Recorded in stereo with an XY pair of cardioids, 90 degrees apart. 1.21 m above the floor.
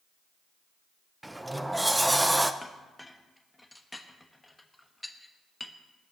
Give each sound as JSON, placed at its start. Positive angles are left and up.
{"t": 1.2, "sound": "a sliding door", "azimuth_deg": -10, "distance_m": 0.7}
{"t": 2.6, "sound": "a clink", "azimuth_deg": 15, "distance_m": 1.2}